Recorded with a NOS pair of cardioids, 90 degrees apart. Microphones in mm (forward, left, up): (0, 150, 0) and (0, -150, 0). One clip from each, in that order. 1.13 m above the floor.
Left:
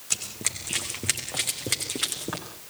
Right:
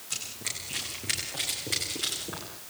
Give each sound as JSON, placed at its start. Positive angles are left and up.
{"t": 0.1, "sound": "running footsteps", "azimuth_deg": 60, "distance_m": 4.5}